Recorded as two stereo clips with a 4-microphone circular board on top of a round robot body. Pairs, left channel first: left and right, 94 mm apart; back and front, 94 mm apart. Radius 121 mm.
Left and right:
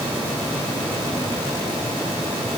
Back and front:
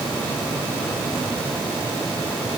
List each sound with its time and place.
Only background noise.